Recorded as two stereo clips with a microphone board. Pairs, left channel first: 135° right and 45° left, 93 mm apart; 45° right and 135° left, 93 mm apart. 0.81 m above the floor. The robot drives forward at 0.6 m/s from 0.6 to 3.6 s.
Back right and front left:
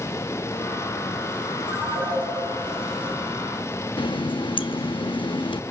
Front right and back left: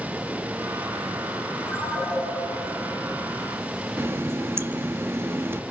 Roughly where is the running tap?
Behind.